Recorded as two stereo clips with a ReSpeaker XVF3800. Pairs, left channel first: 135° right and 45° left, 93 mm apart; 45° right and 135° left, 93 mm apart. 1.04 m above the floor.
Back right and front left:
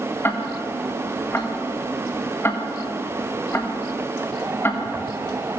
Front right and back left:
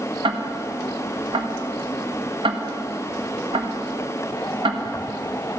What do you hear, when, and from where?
0.2 s ticking: 160° left, 1.3 m